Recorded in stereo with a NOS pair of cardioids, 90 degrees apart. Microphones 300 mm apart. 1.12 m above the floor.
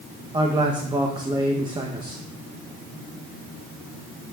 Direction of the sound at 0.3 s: 15° right.